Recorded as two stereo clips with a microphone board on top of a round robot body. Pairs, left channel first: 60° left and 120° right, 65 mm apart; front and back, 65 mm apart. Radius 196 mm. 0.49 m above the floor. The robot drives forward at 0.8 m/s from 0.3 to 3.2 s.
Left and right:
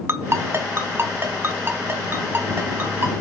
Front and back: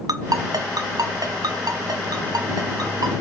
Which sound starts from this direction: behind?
A ringtone, at 0.1 s.